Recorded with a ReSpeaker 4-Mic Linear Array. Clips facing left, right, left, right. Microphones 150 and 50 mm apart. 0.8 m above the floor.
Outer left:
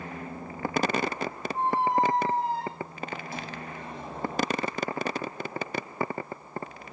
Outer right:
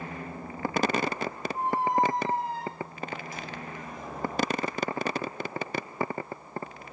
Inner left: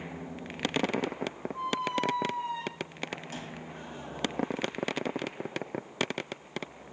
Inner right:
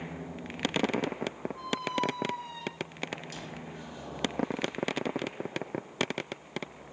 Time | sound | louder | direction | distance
1.5 | a squeak | outer left 1 dB, inner left 2 dB | 30° left (ahead or behind) | 2 m